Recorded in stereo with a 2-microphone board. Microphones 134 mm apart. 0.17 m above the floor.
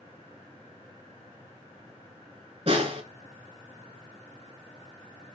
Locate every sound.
2.7 s a snare drum: 45° right (ahead or behind), 1.1 m